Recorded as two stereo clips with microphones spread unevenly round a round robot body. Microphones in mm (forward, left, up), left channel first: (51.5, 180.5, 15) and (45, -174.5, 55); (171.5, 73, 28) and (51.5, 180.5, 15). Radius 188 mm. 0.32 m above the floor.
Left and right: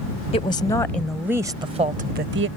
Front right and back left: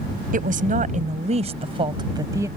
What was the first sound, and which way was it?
A woman speaking, 155° left.